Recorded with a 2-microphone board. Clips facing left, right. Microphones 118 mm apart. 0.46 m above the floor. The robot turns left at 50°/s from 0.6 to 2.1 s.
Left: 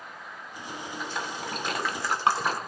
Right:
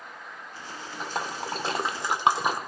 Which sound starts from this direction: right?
A splash, at 1.0 s.